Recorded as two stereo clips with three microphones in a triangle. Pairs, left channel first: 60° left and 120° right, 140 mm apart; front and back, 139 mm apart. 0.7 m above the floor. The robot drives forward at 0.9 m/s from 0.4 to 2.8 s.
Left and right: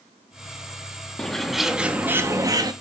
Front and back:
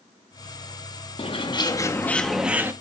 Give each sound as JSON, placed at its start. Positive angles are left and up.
{"t": 1.2, "sound": "a bird", "azimuth_deg": -20, "distance_m": 1.5}